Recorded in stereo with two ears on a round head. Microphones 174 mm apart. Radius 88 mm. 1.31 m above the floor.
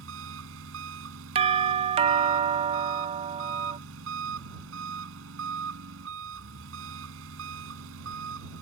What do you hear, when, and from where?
0.0 s an engine running: 80° right
1.4 s a doorbell: 35° right (ahead or behind)